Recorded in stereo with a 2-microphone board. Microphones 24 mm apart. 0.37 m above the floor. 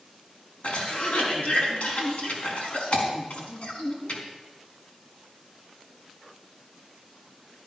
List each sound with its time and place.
0.6 s a cough: 70° left (ahead or behind), 4 m